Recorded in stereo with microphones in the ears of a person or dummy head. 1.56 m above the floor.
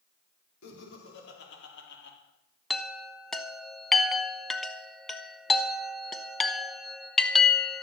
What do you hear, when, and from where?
0.6 s laughter: 70° left (ahead or behind), 4.5 m; by 2.2 s 65° left (ahead or behind), 3.5 m
2.7 s a chime: centre (ahead or behind), 0.8 m